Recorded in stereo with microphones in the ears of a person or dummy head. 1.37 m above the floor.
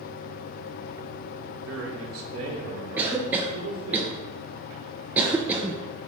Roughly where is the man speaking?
Right.